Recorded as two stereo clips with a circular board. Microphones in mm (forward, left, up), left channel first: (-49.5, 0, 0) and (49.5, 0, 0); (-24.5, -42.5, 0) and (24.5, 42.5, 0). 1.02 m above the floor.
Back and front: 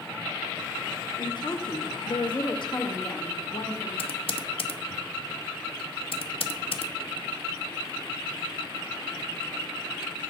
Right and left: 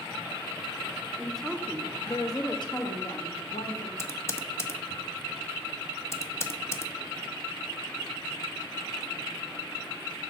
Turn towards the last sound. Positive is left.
turn(degrees=180)